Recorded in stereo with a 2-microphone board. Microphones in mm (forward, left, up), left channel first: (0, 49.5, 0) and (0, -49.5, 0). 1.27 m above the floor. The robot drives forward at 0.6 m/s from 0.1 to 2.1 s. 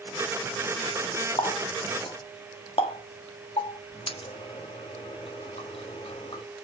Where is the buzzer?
No buzzer in this recording.